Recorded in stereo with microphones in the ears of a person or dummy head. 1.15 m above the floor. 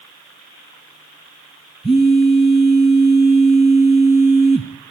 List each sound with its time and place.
1.8 s a phone buzzing: 5° left (ahead or behind), 3 m